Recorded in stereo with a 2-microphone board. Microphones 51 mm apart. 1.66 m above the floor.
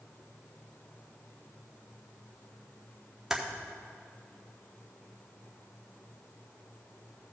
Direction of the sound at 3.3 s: 10° right (ahead or behind).